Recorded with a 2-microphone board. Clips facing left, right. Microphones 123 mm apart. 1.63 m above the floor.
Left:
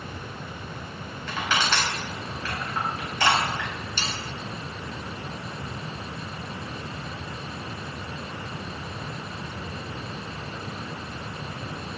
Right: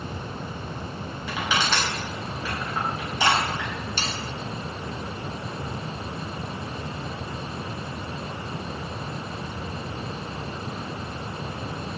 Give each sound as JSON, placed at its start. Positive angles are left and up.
{"t": 1.3, "sound": "crushing", "side_deg": -10, "distance_m": 5.0}
{"t": 4.0, "sound": "sawing", "side_deg": -50, "distance_m": 2.5}